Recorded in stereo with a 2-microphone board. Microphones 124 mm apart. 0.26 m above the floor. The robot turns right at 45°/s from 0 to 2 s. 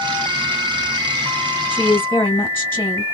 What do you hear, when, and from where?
1.7 s a woman speaking: 15° left (ahead or behind), 1.6 m; by 3.0 s 20° left (ahead or behind), 1.6 m